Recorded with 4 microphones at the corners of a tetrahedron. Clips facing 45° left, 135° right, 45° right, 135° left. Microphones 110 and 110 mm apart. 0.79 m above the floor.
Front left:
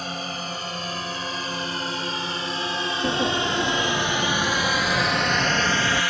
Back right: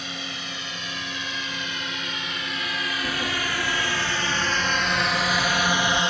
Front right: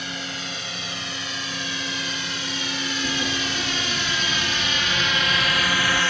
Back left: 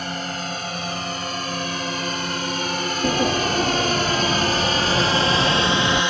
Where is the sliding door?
100° left.